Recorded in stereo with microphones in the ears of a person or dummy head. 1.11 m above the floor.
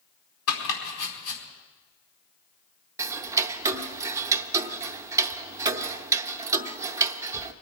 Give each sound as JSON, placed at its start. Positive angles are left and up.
{"t": 0.5, "sound": "chopping", "side_deg": 85, "distance_m": 4.5}
{"t": 3.0, "sound": "ticking", "side_deg": -20, "distance_m": 0.7}